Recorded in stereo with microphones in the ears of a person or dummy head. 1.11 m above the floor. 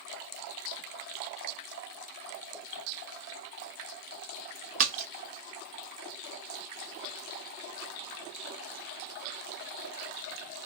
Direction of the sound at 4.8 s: 45° right (ahead or behind).